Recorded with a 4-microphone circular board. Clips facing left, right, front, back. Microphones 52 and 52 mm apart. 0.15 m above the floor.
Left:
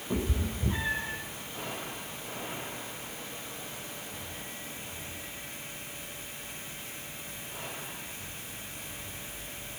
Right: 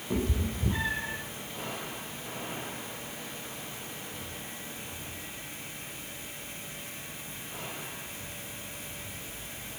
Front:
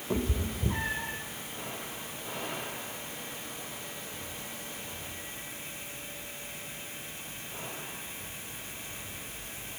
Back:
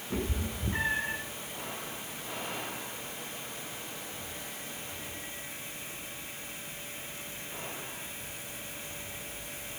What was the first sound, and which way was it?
A cat meowing, 5° left.